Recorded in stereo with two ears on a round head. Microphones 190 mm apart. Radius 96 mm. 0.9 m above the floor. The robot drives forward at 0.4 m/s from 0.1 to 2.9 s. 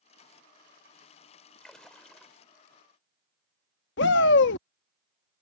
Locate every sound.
1.6 s a splash: 5° left (ahead or behind)
4.0 s a shout: 55° left (ahead or behind)